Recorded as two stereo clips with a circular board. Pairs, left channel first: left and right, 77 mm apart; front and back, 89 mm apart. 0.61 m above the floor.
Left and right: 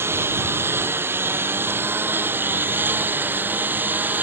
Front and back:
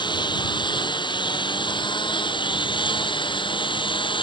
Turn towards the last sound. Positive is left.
turn(degrees=-25)